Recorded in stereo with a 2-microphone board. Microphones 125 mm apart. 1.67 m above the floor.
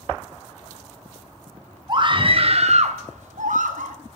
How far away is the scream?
About 1.1 m.